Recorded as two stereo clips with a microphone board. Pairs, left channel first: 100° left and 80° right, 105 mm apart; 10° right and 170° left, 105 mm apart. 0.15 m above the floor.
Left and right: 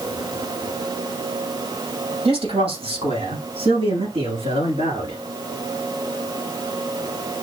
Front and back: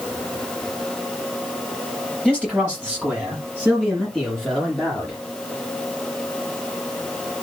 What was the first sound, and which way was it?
A man speaking, 90° right.